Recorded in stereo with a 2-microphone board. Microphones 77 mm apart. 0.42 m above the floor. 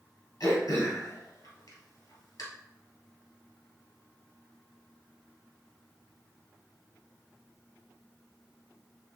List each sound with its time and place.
0.4 s throat clearing: 65° left (ahead or behind), 2 m